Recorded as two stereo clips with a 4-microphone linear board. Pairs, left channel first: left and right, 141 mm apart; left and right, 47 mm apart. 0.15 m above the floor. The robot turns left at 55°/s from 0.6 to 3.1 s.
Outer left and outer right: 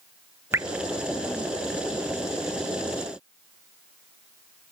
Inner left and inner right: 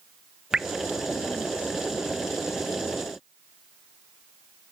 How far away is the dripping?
About 0.5 m.